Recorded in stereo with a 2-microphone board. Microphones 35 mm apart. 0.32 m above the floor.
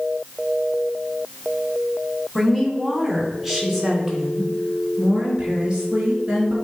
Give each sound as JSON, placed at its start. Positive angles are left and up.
{"t": 2.4, "sound": "a woman speaking", "side_deg": 5, "distance_m": 2.0}